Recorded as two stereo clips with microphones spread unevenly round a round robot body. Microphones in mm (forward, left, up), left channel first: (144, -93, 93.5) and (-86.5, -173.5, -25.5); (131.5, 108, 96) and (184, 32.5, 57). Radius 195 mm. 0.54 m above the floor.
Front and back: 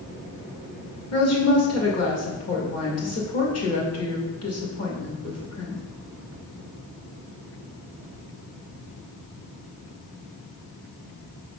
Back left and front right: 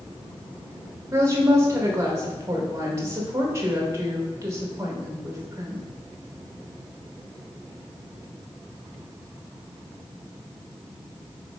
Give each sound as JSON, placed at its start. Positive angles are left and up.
{"t": 1.1, "sound": "a woman speaking", "azimuth_deg": -15, "distance_m": 3.0}